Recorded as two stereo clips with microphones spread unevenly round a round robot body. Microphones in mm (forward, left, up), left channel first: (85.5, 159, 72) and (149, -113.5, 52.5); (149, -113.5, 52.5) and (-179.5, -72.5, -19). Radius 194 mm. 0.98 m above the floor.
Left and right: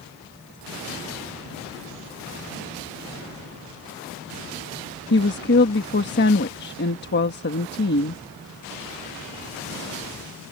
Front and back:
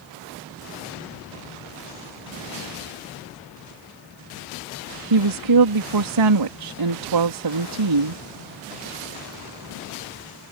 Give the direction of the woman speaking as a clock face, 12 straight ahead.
7 o'clock.